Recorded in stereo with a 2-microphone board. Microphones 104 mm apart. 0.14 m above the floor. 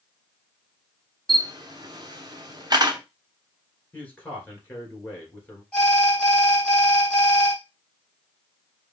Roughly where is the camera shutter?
Right.